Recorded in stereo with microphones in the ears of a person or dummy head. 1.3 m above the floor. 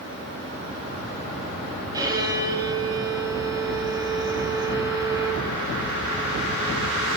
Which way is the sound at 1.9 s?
25° right (ahead or behind).